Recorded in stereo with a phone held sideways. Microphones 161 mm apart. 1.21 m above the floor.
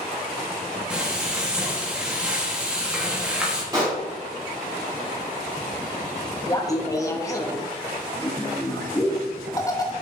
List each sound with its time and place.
0.9 s frying: 5° right (ahead or behind), 1.3 m
3.7 s a pop: 25° right (ahead or behind), 2.5 m
6.5 s laughter: 20° left (ahead or behind), 0.9 m